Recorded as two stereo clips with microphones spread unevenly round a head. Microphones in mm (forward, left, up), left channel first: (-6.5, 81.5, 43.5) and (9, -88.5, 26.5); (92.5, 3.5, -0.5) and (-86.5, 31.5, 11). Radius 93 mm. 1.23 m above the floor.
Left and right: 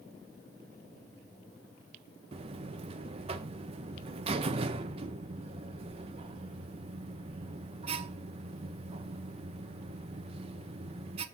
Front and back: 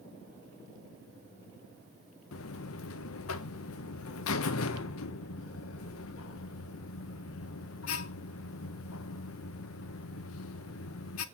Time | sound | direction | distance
2.3 | a buzzer | 25° right | 0.6 m